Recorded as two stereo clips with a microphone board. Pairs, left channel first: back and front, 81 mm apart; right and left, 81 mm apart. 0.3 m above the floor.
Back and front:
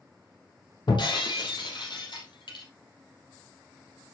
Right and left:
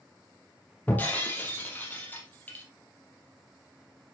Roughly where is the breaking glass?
Behind.